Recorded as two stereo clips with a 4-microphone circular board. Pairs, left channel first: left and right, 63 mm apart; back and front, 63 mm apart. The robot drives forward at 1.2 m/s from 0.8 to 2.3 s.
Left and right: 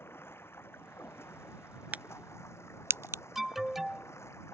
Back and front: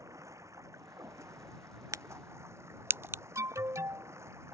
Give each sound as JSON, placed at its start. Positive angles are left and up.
{"t": 0.0, "sound": "running water", "azimuth_deg": 40}
{"t": 1.9, "sound": "a crack", "azimuth_deg": -25}
{"t": 3.4, "sound": "an alarm", "azimuth_deg": -5}